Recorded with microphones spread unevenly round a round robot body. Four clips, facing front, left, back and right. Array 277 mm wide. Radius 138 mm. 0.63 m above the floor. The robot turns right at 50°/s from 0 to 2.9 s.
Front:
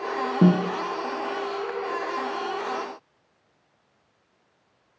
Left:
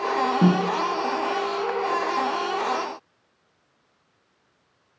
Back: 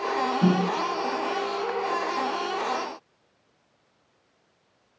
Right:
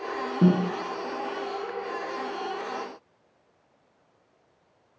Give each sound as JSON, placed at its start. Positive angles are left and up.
{"t": 0.4, "sound": "a snare drum", "azimuth_deg": 15, "distance_m": 1.6}